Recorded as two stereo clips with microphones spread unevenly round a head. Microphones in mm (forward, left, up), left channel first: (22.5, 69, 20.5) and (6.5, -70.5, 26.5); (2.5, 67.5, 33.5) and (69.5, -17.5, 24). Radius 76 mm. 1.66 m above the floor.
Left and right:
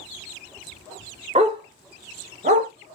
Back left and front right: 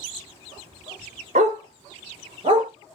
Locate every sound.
1.4 s a dog barking: 65° right, 1.6 m; by 2.7 s 110° right, 1.5 m